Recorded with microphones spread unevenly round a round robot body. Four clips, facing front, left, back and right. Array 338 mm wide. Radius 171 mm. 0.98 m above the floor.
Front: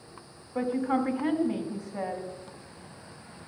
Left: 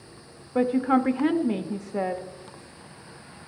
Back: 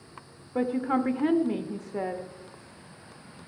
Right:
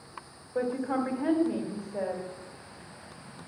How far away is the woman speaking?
About 1.5 m.